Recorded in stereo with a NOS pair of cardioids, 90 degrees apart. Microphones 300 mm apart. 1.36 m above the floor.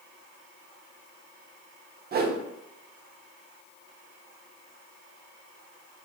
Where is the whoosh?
35° right, 0.6 m.